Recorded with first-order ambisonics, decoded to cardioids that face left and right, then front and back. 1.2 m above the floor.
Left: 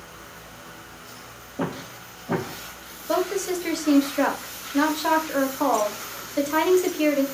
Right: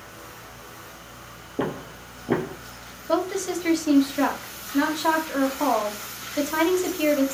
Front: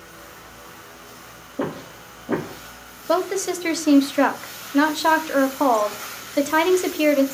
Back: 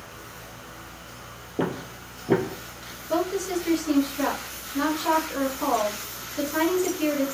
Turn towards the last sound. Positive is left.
turn(degrees=5)